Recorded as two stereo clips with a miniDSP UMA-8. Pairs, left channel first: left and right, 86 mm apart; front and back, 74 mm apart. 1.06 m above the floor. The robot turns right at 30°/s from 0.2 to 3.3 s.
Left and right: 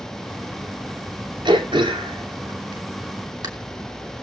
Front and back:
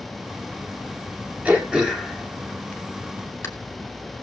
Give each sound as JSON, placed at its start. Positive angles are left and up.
{"t": 1.4, "sound": "throat clearing", "azimuth_deg": -110, "distance_m": 3.0}